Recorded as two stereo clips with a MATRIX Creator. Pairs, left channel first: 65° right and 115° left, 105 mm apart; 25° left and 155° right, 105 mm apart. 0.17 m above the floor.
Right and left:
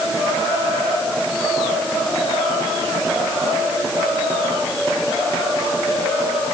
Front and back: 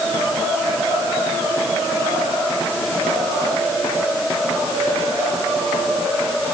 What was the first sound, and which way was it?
Only background noise.